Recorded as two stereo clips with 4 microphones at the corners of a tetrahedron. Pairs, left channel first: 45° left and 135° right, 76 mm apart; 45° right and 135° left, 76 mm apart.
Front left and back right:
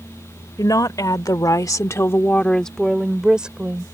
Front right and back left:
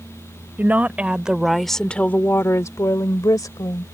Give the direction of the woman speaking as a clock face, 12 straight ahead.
10 o'clock.